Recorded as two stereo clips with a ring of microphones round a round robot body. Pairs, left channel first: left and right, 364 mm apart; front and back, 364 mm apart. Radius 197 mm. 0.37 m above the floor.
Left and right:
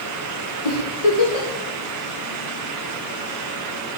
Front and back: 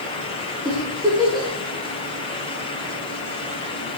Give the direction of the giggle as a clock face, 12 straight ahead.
9 o'clock.